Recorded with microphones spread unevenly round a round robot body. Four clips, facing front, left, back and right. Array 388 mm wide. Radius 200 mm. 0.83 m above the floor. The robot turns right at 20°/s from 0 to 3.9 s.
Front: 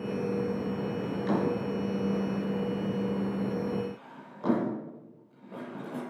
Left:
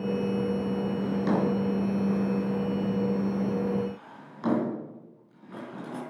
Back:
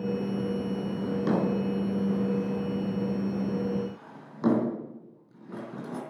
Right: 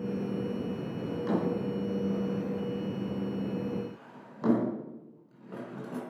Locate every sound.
1.0 s a drawer: 140° left, 4.5 m; by 6.0 s 160° right, 4.5 m